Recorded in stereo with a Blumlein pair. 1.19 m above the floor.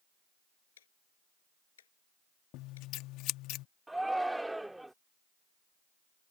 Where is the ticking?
65° left.